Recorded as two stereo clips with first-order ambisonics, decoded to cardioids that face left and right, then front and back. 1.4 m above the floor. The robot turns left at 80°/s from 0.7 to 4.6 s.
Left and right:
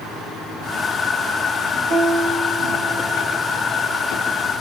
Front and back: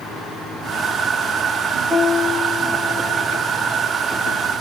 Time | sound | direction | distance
1.9 | a piano | 85° right | 2 m